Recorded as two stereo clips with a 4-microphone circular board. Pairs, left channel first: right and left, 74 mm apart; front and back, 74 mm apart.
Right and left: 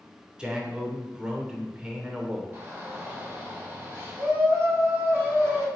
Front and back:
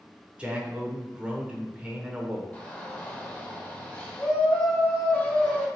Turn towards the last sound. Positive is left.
turn(degrees=60)